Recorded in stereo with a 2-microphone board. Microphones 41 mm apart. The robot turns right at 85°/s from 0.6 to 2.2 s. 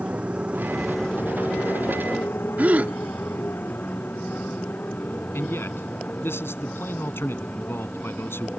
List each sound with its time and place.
0.0 s a motorcycle: 30° right (ahead or behind); by 8.6 s 30° left (ahead or behind)
2.6 s a gasp: 45° right (ahead or behind)
5.3 s a man speaking: 70° left (ahead or behind)